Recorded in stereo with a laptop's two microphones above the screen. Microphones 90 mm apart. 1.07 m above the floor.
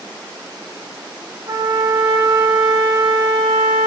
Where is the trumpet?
75° right (ahead or behind), 2.5 m.